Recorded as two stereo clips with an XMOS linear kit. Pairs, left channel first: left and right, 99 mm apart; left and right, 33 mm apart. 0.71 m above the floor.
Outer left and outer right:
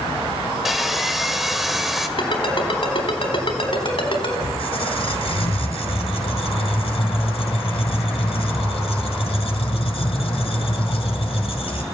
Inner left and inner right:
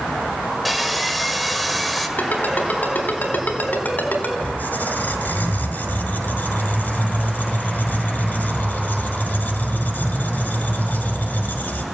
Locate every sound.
0.7 s sawing: 5° right (ahead or behind), 2 m
2.2 s a ringtone: 65° left (ahead or behind), 4 m
4.4 s a squeak: 70° left (ahead or behind), 1.8 m